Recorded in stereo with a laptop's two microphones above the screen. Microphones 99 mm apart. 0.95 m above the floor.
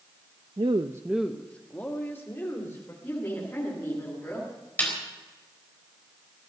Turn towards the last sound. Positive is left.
turn(degrees=20)  # may be behind; listen again after turning